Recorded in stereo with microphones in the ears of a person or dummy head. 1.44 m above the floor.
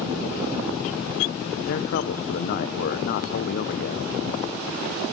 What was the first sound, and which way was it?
A man speaking, 50° left (ahead or behind).